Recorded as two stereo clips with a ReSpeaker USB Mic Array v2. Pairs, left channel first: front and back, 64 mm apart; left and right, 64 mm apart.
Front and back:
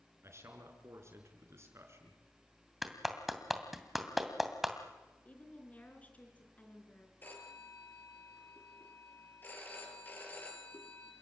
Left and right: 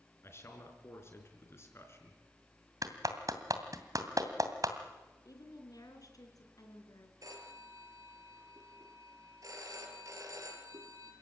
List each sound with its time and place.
0.2 s a man speaking: 135° left, 5 m
2.8 s a clap: 95° right, 2.5 m
5.2 s a woman speaking: 65° left, 4 m
7.2 s a phone ringing: 60° right, 5 m